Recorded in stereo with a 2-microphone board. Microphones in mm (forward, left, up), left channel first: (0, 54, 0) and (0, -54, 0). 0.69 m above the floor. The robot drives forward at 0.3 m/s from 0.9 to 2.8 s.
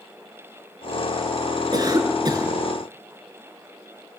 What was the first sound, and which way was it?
A cough, 40° right (ahead or behind).